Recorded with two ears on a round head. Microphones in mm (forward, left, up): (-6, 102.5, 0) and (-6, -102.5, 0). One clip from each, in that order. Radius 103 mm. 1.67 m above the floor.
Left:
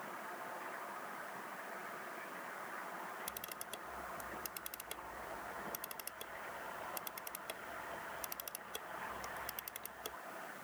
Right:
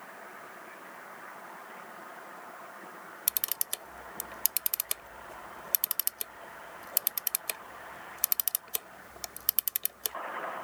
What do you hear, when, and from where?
3.3 s a camera shutter: 75° right (ahead or behind)